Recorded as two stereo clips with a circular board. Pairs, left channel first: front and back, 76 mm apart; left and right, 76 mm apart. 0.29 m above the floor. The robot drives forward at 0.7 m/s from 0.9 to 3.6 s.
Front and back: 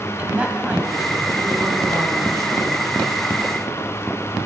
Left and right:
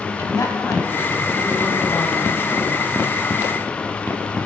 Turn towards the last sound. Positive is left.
turn(degrees=155)